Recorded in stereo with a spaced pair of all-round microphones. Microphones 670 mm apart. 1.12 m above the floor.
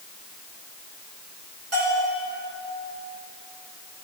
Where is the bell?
50° right (ahead or behind), 6 m.